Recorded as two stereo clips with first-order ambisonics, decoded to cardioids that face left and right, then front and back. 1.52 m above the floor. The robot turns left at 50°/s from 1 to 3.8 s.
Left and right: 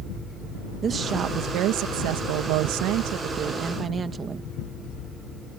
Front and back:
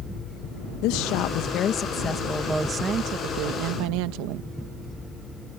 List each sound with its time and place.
0.8 s a woman speaking: 20° right; by 4.5 s 160° right